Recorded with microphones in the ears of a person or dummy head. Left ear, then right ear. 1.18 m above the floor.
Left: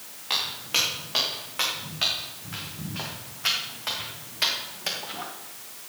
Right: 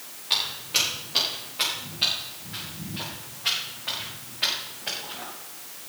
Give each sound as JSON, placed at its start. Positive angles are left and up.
{"t": 0.3, "sound": "footsteps", "side_deg": 40, "distance_m": 7.0}